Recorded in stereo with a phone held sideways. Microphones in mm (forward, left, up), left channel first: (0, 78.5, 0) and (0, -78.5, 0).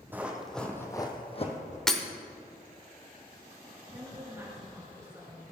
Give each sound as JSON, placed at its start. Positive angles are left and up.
{"t": 0.1, "sound": "running footsteps", "side_deg": -10, "distance_m": 2.0}
{"t": 1.9, "sound": "breaking glass", "side_deg": 5, "distance_m": 1.1}
{"t": 3.9, "sound": "a woman speaking", "side_deg": -20, "distance_m": 3.5}